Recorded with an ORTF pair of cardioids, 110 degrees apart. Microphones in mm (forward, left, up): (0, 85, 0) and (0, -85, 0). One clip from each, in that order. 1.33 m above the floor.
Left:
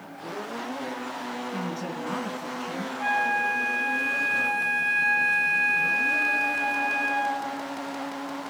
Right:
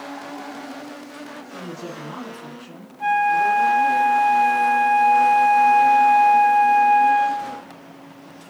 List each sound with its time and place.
1.5 s a man speaking: 50° left, 3 m
3.0 s a flute: 5° right, 1.2 m